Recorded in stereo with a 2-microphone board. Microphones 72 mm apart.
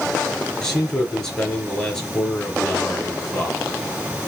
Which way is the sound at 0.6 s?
5° left (ahead or behind).